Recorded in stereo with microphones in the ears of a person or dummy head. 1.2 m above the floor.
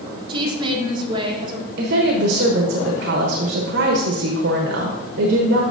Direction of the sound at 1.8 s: 60° right (ahead or behind).